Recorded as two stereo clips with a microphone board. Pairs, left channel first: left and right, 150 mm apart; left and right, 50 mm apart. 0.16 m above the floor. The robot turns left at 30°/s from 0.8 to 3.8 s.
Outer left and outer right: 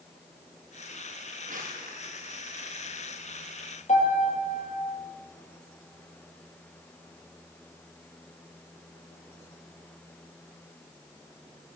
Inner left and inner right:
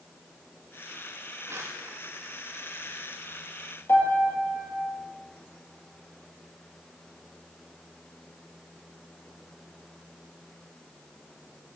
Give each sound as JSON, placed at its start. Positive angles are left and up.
{"t": 1.4, "sound": "crumpling", "side_deg": -60, "distance_m": 6.5}
{"t": 3.9, "sound": "a piano", "side_deg": 50, "distance_m": 5.0}